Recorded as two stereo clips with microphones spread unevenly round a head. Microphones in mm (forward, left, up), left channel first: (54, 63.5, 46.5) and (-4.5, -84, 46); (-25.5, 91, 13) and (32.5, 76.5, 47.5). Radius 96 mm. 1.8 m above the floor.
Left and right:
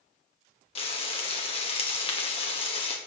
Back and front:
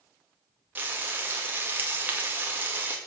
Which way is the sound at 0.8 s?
15° left.